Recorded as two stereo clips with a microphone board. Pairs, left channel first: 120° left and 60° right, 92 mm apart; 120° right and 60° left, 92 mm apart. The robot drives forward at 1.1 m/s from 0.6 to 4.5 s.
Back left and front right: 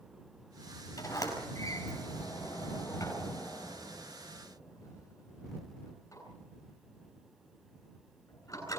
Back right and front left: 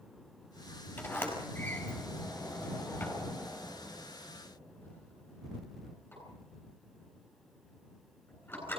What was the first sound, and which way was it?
A sliding door, 170° left.